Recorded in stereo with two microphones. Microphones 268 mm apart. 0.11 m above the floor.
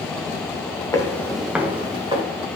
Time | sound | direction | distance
0.9 | footsteps | 10° left (ahead or behind) | 1.2 m